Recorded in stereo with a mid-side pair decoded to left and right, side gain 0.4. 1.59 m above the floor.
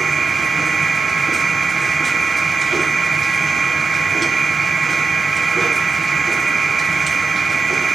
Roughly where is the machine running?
Ahead right.